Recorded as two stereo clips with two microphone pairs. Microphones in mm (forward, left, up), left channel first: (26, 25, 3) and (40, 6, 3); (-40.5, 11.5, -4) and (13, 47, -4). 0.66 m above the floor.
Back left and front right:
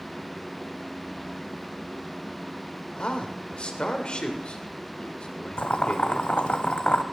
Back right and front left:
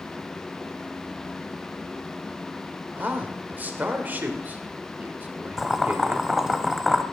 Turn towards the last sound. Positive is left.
turn(degrees=115)